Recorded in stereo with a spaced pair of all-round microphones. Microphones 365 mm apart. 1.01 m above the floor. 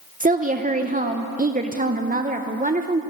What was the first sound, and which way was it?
A woman speaking, 25° right (ahead or behind).